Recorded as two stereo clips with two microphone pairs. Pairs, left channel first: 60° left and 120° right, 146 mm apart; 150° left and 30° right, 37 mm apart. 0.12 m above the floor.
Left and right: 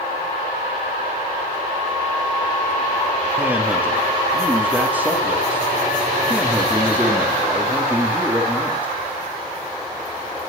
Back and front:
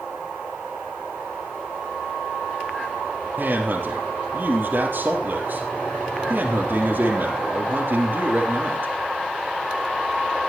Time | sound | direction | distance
3.4 | a man speaking | 40° right | 3.5 m